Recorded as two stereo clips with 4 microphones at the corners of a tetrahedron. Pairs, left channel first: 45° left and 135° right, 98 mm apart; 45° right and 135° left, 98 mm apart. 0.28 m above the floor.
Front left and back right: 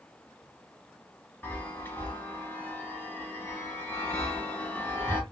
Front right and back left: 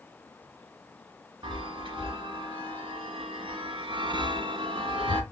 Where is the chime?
115° left, 0.9 m.